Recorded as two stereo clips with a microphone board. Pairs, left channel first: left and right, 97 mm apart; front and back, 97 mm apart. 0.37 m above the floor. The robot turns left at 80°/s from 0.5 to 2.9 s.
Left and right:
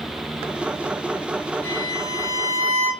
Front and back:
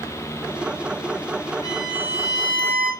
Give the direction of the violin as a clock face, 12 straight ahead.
2 o'clock.